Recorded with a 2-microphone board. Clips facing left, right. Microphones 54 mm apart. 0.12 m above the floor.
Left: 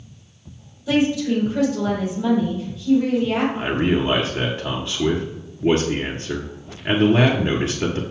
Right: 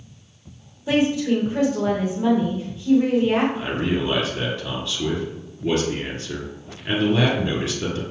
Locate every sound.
0.9 s a woman speaking: 35° right (ahead or behind), 3.5 m
3.5 s a man speaking: 30° left (ahead or behind), 1.3 m